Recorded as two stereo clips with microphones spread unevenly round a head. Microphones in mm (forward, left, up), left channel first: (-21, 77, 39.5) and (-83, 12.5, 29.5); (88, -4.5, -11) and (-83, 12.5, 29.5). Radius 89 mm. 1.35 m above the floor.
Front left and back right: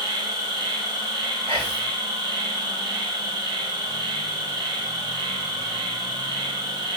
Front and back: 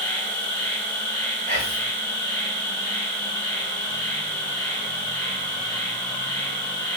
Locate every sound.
0.0 s an insect: 85° right, 4.5 m
1.5 s whispering: 135° right, 4.5 m